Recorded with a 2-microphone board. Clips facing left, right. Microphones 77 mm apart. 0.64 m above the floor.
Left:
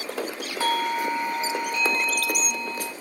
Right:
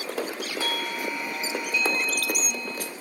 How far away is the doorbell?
About 1.6 m.